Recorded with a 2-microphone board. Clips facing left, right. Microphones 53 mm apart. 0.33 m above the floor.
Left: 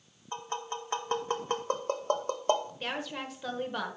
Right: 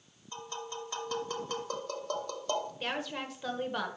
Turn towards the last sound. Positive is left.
turn(degrees=0)  # may be behind; listen again after turning